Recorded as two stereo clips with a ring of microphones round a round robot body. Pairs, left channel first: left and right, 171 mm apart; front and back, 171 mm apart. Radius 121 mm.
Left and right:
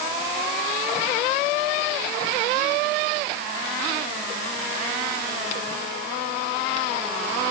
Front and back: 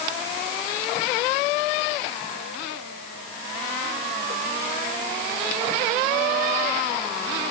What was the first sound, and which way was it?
Only background noise.